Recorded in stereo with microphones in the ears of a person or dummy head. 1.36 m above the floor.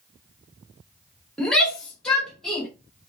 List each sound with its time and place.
1.4 s a shout: 10° left (ahead or behind), 1.7 m; by 2.7 s 5° left (ahead or behind), 2.5 m